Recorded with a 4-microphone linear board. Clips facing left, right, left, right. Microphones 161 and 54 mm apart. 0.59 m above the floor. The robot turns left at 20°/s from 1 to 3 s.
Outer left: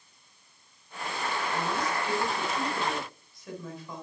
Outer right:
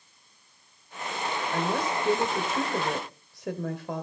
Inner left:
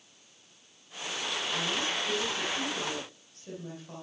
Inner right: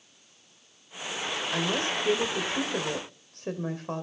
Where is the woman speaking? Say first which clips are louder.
Outer right 5 dB, inner right 5 dB; 50° right (ahead or behind), 2.5 m; by 4.0 s 70° right (ahead or behind), 2.5 m.